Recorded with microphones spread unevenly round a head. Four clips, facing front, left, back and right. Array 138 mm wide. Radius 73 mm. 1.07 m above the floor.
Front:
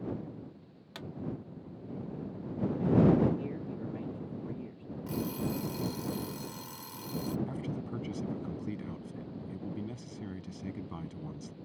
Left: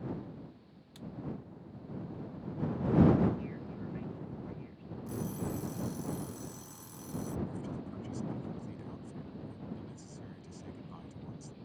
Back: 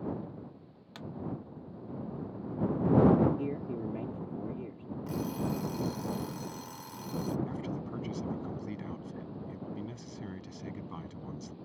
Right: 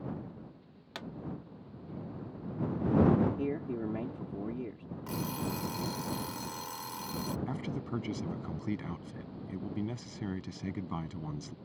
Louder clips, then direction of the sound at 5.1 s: Right 2 dB, even; 85° right.